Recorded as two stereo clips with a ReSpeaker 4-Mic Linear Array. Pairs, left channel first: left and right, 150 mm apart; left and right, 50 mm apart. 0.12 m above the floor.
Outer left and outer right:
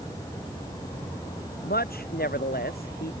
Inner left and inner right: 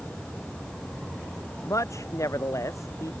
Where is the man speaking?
80° left.